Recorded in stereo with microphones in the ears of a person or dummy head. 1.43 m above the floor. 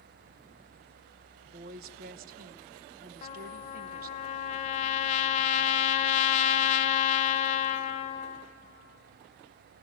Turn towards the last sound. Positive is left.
turn(degrees=35)  # may be behind; listen again after turning